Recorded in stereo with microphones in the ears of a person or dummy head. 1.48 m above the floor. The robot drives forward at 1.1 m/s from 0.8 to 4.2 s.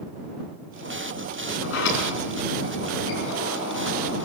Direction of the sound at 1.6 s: 65° left (ahead or behind).